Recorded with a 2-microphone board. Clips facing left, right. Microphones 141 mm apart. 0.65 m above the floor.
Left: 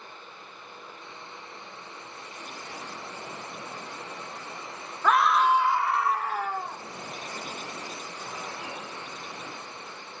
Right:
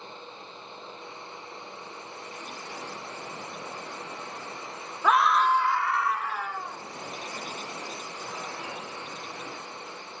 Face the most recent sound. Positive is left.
turn(degrees=45)  # may be behind; listen again after turning